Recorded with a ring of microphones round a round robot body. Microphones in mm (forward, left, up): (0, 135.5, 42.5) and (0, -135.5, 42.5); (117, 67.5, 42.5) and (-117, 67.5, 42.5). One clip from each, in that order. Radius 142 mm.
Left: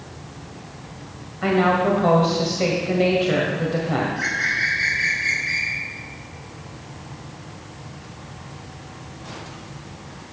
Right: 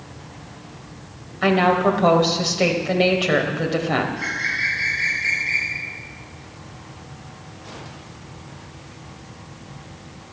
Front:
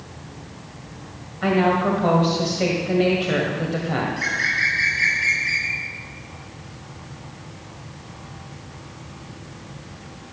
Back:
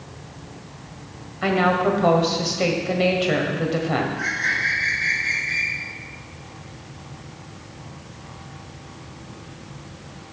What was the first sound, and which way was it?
A woman speaking, 115° right.